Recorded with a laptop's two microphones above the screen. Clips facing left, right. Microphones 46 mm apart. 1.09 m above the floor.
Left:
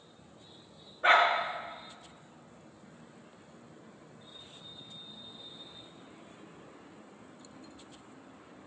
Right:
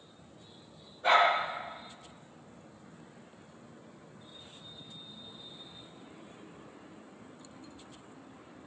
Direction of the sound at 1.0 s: 45° left (ahead or behind).